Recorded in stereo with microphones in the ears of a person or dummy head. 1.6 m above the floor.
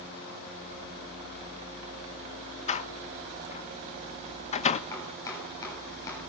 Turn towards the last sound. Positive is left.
turn(degrees=25)  # may be behind; listen again after turning